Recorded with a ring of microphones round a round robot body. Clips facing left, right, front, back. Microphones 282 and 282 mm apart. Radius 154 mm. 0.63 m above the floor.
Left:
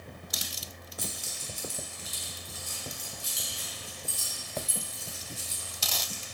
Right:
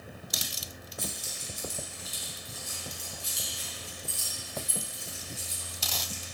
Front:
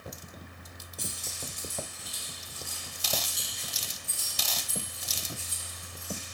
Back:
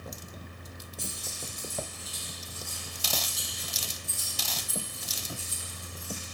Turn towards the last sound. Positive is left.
turn(degrees=115)